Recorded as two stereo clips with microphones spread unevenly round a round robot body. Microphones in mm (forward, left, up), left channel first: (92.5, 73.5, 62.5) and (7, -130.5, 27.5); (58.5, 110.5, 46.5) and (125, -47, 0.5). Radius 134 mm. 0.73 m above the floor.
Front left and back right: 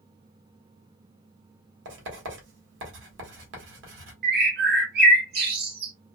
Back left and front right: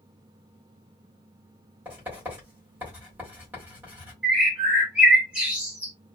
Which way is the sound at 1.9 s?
145° right.